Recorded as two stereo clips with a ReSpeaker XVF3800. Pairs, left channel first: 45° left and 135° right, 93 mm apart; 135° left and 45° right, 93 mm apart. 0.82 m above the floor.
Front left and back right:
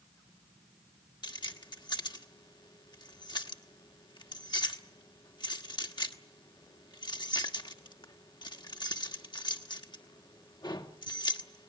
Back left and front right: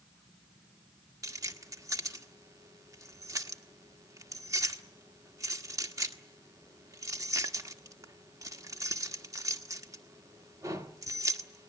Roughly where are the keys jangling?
Ahead.